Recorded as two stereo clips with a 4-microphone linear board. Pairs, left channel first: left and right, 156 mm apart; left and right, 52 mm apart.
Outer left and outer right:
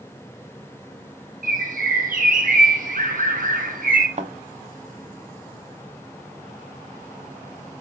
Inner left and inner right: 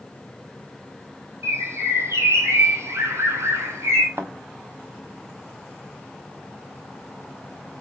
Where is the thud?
50° right (ahead or behind), 0.9 m.